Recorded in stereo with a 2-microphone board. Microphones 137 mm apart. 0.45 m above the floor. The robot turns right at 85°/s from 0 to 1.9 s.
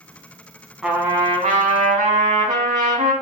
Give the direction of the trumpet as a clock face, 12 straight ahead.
6 o'clock.